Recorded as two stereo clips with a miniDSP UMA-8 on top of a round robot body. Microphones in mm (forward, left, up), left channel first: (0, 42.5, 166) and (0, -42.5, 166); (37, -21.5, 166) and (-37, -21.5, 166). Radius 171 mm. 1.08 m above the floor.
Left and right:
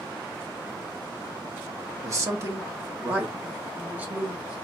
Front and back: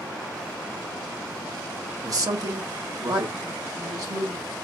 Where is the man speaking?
140° right, 1.2 m; by 4.5 s 160° right, 2.5 m.